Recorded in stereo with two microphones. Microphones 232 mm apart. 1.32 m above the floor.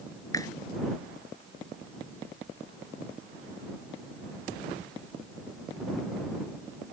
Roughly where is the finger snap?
Centre.